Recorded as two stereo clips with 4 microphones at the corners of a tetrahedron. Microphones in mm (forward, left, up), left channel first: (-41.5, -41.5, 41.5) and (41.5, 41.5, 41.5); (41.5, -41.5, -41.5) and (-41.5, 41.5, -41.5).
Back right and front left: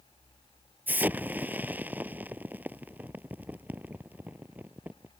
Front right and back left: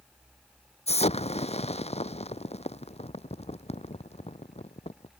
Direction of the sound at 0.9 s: 30° right.